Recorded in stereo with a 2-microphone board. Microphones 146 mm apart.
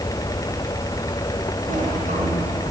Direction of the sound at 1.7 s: 65° right (ahead or behind).